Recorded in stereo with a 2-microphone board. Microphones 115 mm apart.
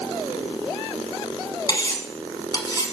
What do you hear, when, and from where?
1.7 s cutlery clinking: 35° left (ahead or behind), 1.2 m